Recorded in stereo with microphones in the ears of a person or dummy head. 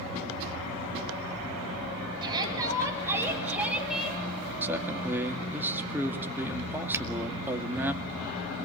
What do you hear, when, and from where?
2.2 s a shout: 25° right (ahead or behind), 7 m; by 4.2 s centre (ahead or behind), 7 m
4.6 s a man speaking: 15° right (ahead or behind), 2.5 m
6.9 s a finger snap: 15° right (ahead or behind), 2 m